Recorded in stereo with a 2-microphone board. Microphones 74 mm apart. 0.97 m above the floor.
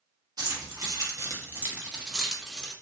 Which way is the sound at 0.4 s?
65° right (ahead or behind).